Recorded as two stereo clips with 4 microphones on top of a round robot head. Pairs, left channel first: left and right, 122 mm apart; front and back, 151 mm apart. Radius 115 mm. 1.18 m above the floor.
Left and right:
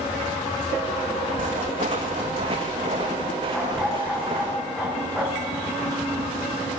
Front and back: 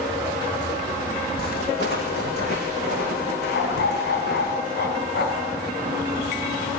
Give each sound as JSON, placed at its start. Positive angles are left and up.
{"t": 1.4, "sound": "footsteps", "azimuth_deg": -45, "distance_m": 4.5}
{"t": 3.5, "sound": "a dog barking", "azimuth_deg": 5, "distance_m": 5.0}